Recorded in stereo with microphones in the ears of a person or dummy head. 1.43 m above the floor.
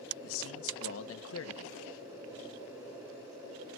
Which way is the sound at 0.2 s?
80° left.